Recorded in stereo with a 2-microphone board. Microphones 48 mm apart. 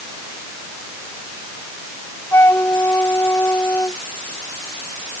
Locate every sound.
2.3 s a flute: 60° left (ahead or behind)